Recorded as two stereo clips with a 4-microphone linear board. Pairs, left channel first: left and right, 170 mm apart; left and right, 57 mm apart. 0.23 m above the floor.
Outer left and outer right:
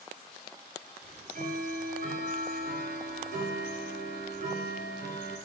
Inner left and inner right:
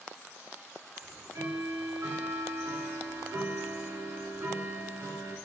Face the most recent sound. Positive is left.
turn(degrees=-60)  # may be behind; listen again after turning